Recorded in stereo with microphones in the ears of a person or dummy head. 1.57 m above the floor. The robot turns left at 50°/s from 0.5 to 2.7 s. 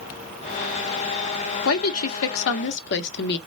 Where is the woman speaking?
115° left, 0.7 m; by 3.4 s 60° left, 0.7 m.